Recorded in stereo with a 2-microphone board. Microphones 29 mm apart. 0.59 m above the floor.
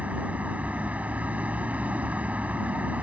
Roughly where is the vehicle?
Right.